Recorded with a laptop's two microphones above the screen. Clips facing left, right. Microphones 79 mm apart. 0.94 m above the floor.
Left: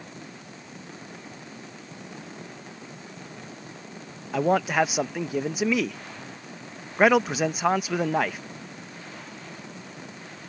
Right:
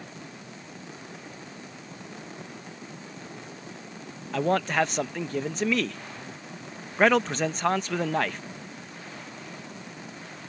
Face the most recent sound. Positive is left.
turn(degrees=10)  # may be behind; listen again after turning